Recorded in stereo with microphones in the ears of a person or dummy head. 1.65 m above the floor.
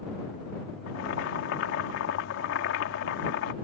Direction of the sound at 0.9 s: 80° left.